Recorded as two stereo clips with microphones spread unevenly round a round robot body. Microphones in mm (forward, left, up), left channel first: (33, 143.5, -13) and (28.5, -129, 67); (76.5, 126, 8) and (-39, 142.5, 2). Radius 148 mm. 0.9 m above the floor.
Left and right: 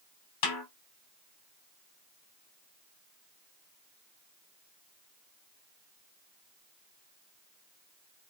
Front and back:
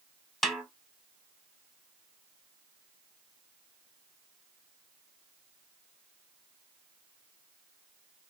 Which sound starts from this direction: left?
A snare drum, at 0.4 s.